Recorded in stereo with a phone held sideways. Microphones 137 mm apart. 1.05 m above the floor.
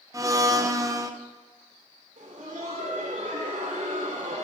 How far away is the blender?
About 0.8 m.